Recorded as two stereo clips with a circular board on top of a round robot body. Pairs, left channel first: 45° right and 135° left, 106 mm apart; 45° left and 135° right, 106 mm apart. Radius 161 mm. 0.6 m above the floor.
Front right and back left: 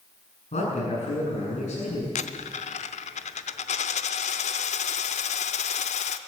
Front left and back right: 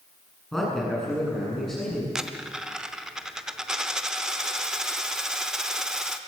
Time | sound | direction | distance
0.5 | a man speaking | 45° right | 8 m
2.1 | a dropped coin | 50° right | 0.7 m